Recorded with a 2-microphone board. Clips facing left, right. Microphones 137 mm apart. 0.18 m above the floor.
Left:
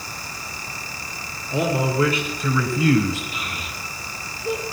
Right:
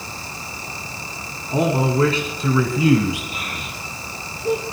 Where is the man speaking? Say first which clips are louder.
Right 3 dB; 40° right (ahead or behind), 1.6 m; by 3.2 s 10° right (ahead or behind), 1.8 m.